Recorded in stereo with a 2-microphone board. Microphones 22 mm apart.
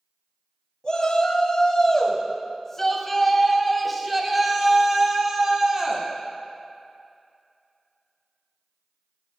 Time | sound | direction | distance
0.8 | a shout | 50° left (ahead or behind) | 2.5 m